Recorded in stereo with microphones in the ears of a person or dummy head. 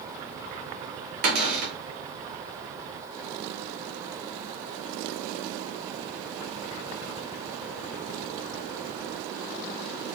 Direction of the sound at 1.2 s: 50° right (ahead or behind).